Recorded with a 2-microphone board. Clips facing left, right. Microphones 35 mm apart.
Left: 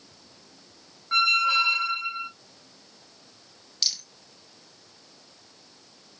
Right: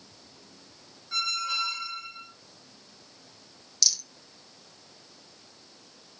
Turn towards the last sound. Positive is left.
turn(degrees=30)  # may be behind; listen again after turning